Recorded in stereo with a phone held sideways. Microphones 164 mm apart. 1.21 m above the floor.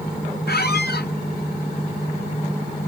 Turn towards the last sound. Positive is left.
turn(degrees=75)  # may be behind; listen again after turning